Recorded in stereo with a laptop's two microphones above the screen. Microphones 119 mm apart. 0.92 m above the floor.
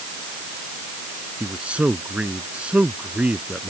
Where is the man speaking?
10° right (ahead or behind).